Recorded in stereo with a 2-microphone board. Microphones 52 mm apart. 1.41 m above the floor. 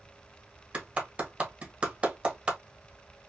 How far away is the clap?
About 1.4 m.